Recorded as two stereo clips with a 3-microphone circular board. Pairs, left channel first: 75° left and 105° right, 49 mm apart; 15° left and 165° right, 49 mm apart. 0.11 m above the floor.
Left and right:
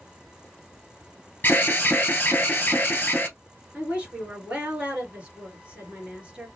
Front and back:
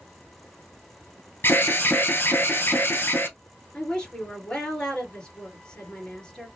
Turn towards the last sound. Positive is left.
turn(degrees=-50)